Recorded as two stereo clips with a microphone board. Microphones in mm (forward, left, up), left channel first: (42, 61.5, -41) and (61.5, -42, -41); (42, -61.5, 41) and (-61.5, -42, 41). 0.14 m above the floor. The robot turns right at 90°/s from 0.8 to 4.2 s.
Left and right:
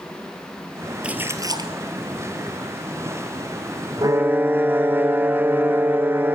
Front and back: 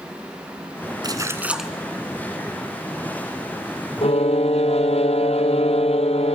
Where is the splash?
155° right, 1.9 m; by 1.7 s 100° right, 1.9 m.